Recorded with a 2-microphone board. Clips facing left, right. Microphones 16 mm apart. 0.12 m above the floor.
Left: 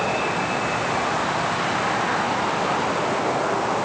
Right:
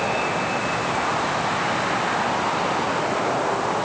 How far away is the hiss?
No hiss in this recording.